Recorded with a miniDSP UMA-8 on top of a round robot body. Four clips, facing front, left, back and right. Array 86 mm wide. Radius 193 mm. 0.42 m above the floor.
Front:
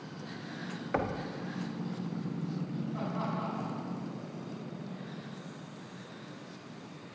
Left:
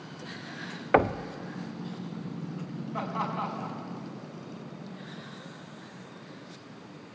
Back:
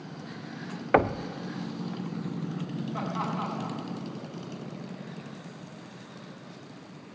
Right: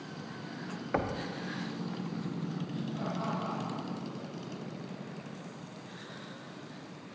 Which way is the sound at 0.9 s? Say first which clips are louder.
Left 9 dB, back 10 dB; 140° left.